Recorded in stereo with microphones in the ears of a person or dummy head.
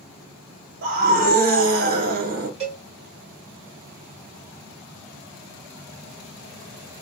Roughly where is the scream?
Right.